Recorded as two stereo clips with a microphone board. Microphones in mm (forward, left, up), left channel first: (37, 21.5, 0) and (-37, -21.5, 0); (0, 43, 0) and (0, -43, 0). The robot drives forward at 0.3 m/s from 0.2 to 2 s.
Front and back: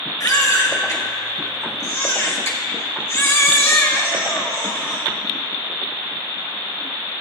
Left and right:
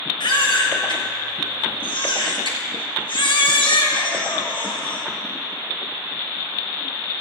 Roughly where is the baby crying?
Left.